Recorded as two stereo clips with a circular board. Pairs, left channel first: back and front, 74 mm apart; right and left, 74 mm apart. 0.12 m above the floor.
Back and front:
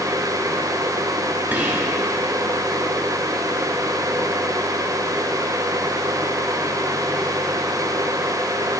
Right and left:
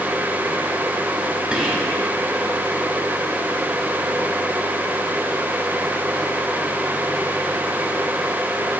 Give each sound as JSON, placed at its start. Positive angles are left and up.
{"t": 1.5, "sound": "whispering", "azimuth_deg": 30, "distance_m": 1.5}